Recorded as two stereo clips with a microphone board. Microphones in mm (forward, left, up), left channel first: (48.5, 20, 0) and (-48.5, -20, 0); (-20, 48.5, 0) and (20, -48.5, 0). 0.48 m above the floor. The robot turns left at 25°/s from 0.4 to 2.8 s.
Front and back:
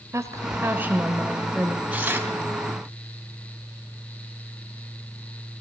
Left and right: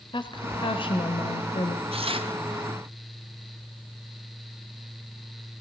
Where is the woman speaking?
145° left, 1.6 m; by 1.8 s 110° left, 1.6 m.